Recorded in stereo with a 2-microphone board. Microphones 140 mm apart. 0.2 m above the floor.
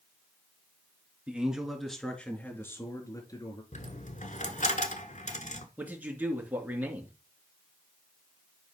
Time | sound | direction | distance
1.3 | a man speaking | 10° right (ahead or behind) | 3 m
3.7 | a dropped coin | 60° left (ahead or behind) | 1.4 m
5.8 | a man speaking | 10° right (ahead or behind) | 2.5 m